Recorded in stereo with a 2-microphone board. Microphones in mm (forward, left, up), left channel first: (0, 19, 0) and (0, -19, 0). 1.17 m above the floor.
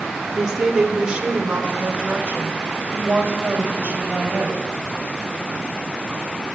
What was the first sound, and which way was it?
A woman speaking, 20° right (ahead or behind).